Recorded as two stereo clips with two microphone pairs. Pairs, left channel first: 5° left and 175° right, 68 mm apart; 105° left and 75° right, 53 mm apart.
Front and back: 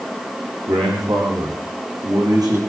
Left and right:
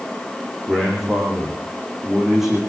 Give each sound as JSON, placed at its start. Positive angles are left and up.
{"t": 0.7, "sound": "a man speaking", "azimuth_deg": -155, "distance_m": 9.5}